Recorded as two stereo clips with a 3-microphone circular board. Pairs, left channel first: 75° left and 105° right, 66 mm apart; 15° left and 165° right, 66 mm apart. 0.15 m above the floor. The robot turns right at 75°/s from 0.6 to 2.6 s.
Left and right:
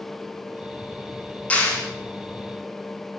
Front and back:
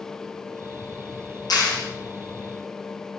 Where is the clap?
5° left, 6 m; by 1.8 s 30° left, 6 m.